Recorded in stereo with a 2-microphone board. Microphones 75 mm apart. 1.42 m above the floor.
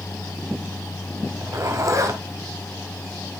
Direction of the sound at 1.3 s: 45° right (ahead or behind).